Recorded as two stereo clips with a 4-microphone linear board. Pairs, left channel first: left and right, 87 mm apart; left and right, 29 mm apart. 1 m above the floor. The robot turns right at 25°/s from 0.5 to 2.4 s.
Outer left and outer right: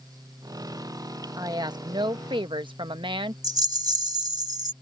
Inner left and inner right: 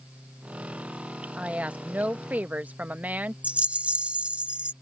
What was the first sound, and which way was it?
A woman speaking, 45° right (ahead or behind).